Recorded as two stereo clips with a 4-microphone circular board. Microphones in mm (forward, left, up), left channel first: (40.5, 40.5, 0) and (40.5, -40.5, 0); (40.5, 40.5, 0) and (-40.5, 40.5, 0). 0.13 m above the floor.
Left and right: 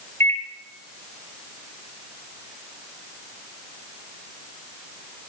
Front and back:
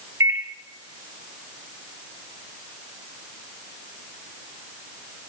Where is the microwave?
140° left, 2 m.